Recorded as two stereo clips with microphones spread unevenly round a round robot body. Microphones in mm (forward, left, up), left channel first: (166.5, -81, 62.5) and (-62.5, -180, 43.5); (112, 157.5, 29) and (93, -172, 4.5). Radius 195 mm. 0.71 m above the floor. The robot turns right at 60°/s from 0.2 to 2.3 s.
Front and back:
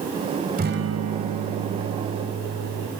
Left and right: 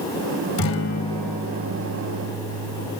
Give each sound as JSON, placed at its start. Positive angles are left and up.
{"t": 0.6, "sound": "a guitar", "azimuth_deg": 135, "distance_m": 1.8}